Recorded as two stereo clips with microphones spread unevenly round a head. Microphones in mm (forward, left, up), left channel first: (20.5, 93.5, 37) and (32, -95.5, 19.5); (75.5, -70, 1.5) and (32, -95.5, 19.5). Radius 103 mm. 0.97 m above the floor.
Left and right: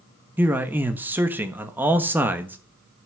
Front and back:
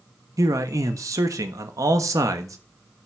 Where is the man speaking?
165° right, 1.3 m.